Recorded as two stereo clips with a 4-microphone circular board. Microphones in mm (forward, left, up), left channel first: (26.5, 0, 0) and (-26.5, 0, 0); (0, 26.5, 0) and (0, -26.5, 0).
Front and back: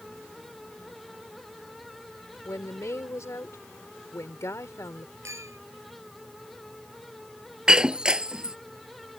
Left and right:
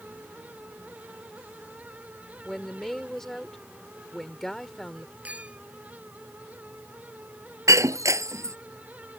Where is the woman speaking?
10° left.